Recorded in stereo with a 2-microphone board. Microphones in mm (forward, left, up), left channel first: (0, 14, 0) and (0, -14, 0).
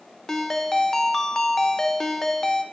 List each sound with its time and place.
0.3 s a ringtone: 15° left (ahead or behind), 0.6 m